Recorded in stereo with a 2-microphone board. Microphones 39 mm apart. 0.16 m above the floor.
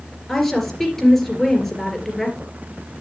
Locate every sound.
0.3 s a woman speaking: 5° left (ahead or behind), 3 m